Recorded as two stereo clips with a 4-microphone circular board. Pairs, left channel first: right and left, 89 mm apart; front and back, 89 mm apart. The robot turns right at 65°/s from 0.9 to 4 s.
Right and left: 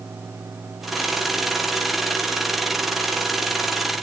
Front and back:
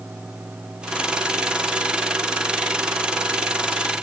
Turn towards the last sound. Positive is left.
No sound to turn to.